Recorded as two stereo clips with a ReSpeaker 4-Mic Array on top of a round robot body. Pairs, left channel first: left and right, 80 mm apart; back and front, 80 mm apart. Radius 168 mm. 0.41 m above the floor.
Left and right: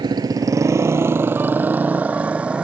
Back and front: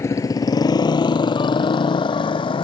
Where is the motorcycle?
125° right; by 2.6 s 165° right.